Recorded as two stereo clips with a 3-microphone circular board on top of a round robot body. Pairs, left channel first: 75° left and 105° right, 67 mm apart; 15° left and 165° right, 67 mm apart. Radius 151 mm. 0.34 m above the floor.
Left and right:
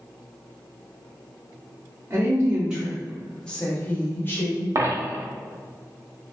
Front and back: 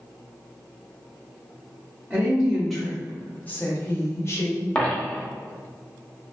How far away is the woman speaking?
About 1.1 m.